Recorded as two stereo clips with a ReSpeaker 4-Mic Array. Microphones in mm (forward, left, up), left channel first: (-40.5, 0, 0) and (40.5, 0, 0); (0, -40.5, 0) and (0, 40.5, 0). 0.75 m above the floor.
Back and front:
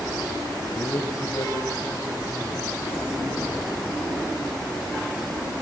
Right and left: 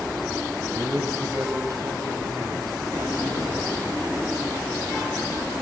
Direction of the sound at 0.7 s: 135° left.